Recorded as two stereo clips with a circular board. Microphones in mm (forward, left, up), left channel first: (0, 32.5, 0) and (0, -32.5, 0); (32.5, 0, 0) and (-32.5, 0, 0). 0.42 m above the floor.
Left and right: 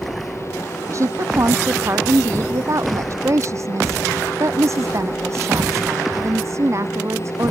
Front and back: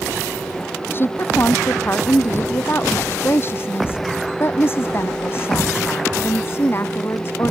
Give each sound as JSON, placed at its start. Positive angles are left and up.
{"t": 0.9, "sound": "a woman speaking", "azimuth_deg": -55}